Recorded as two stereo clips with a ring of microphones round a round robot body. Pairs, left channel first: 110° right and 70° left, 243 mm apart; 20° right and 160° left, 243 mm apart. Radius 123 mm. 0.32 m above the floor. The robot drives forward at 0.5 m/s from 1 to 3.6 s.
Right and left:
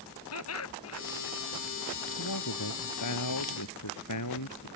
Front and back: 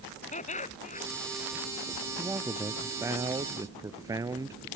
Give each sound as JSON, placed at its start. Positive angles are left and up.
{"t": 0.3, "sound": "laughter", "azimuth_deg": -85}
{"t": 2.2, "sound": "a man speaking", "azimuth_deg": -120}